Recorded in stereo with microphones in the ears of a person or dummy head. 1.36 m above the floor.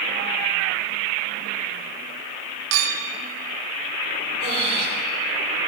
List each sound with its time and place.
2.7 s a clink: 70° right (ahead or behind), 0.9 m
4.4 s breathing: 35° right (ahead or behind), 4.5 m